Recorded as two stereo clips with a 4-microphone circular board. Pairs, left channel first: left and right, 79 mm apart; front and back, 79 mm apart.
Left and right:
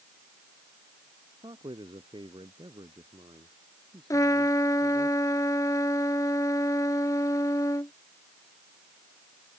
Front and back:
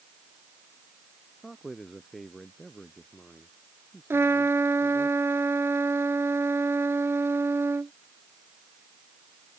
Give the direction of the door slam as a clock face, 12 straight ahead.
No door slam in this recording.